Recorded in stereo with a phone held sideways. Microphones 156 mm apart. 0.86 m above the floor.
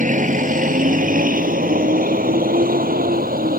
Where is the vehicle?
55° right (ahead or behind); by 3.6 s 70° right (ahead or behind).